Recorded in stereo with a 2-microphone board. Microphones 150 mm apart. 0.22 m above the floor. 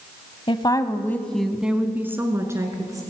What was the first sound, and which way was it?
A woman speaking, 35° left (ahead or behind).